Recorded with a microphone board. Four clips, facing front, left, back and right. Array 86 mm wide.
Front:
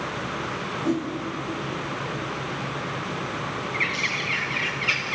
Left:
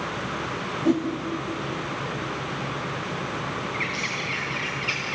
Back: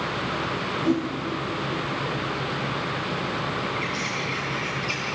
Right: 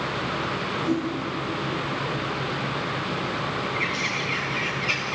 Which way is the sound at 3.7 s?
10° left.